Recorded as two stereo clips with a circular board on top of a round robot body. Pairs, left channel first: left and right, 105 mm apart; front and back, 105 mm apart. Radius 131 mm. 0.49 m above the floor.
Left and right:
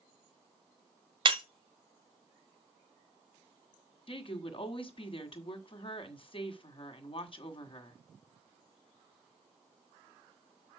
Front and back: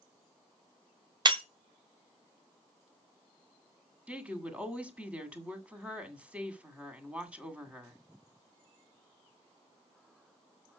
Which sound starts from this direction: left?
A woman speaking, at 4.1 s.